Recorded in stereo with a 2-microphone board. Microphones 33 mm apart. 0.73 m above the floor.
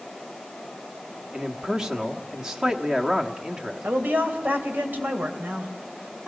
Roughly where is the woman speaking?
Right.